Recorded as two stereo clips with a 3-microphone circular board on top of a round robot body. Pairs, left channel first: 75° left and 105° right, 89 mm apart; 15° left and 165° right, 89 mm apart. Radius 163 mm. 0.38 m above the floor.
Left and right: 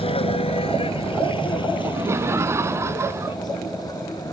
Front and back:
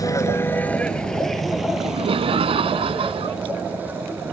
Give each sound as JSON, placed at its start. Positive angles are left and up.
{"t": 0.0, "sound": "a vehicle", "azimuth_deg": 65}
{"t": 1.8, "sound": "laughter", "azimuth_deg": -165}